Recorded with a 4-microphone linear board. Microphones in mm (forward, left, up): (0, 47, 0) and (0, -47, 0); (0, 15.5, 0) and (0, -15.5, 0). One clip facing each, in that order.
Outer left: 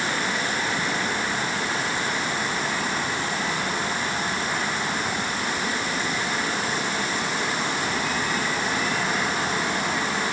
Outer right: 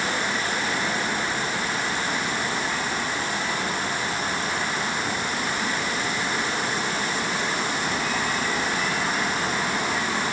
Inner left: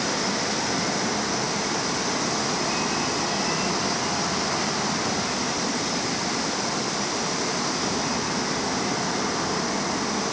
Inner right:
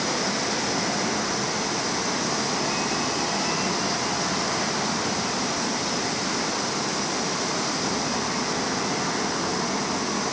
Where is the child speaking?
I don't hear a child speaking.